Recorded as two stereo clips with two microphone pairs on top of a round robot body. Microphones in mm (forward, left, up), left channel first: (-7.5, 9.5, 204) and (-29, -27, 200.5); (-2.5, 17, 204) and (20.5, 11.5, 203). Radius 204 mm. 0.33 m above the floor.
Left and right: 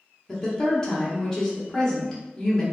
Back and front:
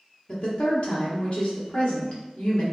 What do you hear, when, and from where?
0.3 s a woman speaking: 140° left, 1.5 m